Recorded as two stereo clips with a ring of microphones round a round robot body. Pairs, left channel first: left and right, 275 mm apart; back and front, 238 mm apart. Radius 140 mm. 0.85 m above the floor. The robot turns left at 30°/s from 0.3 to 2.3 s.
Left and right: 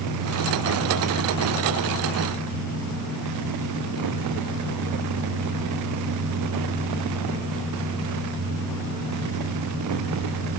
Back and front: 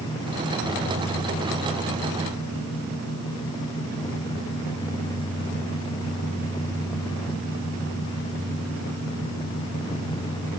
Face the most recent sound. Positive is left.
No sound to turn to.